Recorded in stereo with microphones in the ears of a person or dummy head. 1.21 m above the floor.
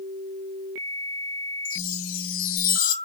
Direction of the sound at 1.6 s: 70° left (ahead or behind).